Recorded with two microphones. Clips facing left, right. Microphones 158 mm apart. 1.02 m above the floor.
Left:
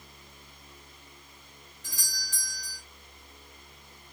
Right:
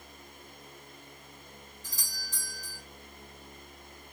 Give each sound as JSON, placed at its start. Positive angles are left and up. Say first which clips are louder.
{"t": 1.8, "sound": "a doorbell", "louder": "left 1 dB", "side_deg": 75, "distance_m": 3.0}